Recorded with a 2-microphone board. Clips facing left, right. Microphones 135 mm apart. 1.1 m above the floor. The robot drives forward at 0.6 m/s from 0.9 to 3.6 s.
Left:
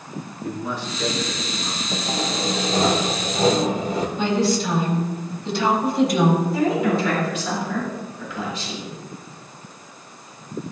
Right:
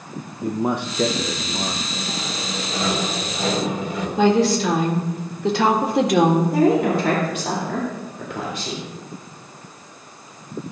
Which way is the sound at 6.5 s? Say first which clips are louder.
Right 3 dB; 55° right (ahead or behind).